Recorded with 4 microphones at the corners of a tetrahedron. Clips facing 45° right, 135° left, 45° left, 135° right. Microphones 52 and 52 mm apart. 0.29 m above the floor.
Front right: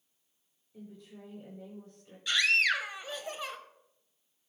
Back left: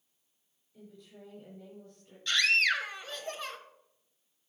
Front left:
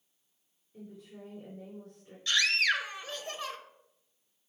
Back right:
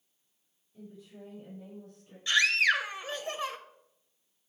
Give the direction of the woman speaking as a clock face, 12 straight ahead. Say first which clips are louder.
Front right 3 dB, front left 1 dB; 12 o'clock.